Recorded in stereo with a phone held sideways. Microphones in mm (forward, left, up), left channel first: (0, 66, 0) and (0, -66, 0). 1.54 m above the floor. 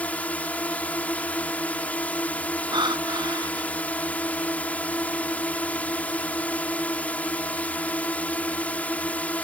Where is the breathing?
35° right (ahead or behind).